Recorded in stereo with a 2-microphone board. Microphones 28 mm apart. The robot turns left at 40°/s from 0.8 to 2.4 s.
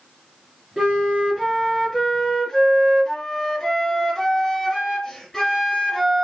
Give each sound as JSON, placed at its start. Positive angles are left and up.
{"t": 0.8, "sound": "a flute", "azimuth_deg": -135, "distance_m": 1.2}